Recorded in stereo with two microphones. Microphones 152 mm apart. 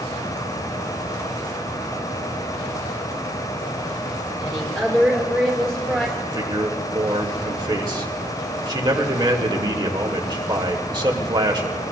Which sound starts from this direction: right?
A man speaking, at 6.2 s.